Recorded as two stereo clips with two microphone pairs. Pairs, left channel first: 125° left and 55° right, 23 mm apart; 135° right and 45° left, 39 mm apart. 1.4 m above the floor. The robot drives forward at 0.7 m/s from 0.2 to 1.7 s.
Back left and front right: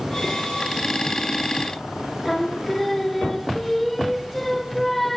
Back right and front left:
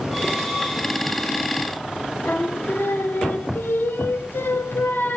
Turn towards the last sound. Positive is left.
turn(degrees=-150)